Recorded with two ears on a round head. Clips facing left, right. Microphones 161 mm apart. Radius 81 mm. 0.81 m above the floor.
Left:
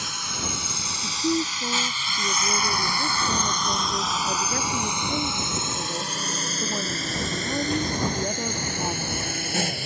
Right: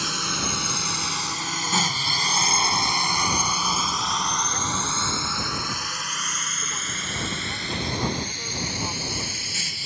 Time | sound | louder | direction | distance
0.0 | a drone | right 4 dB | 60° right (ahead or behind) | ?
1.0 | a woman speaking | left 8 dB | 55° left (ahead or behind) | ?